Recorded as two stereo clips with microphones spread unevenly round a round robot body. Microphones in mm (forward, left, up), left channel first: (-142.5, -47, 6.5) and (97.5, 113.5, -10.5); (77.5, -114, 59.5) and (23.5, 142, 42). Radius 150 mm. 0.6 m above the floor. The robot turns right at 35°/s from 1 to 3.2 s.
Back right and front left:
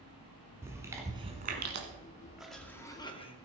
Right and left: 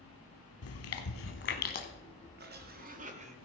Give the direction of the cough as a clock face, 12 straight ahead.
8 o'clock.